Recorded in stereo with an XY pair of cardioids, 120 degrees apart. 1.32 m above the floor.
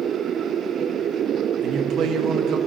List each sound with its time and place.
1.6 s a man speaking: 60° right, 1.6 m